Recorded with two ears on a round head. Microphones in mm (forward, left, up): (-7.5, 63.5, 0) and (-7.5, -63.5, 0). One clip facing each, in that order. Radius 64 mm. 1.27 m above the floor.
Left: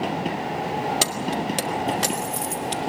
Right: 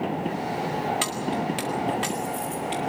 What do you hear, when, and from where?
1.0 s keys jangling: 50° left (ahead or behind), 1.7 m